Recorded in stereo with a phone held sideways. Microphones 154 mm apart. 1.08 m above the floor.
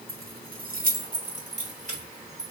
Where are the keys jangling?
85° right, 0.6 m; by 2.5 s 50° right (ahead or behind), 1.8 m.